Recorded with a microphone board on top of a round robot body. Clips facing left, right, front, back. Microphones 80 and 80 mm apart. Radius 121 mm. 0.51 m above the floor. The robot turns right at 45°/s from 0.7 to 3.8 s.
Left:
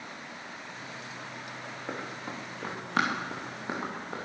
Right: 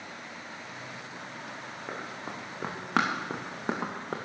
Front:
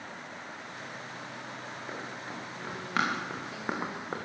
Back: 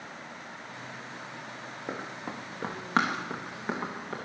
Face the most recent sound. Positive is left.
turn(degrees=-65)